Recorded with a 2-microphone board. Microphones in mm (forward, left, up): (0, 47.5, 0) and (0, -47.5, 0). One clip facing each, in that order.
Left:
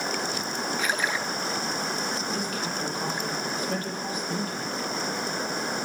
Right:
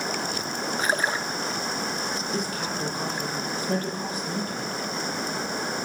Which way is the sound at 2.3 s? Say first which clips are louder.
Right 1 dB; 35° right (ahead or behind).